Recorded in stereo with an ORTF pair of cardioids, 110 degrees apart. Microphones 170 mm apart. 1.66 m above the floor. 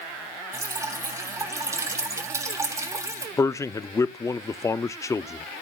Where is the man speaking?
20° left, 0.5 m.